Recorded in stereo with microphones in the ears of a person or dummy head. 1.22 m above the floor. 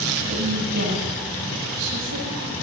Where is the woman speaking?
75° right (ahead or behind), 9 m.